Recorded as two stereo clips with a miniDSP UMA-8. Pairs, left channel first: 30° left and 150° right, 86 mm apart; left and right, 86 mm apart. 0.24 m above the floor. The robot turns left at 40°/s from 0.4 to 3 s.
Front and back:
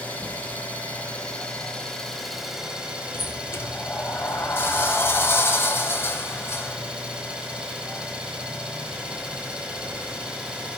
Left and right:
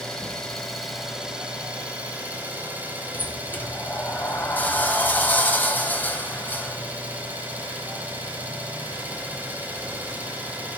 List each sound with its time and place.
0.0 s an engine running: 15° left, 1.1 m; by 10.8 s 90° right, 1.1 m
3.1 s a sliding door: 45° left, 0.6 m